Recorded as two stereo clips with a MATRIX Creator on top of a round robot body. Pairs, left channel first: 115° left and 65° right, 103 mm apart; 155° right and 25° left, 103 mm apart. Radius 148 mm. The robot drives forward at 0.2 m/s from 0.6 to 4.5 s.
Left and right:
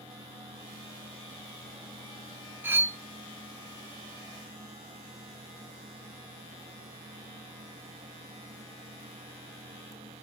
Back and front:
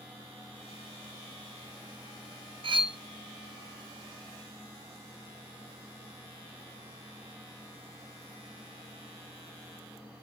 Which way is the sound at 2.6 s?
Straight ahead.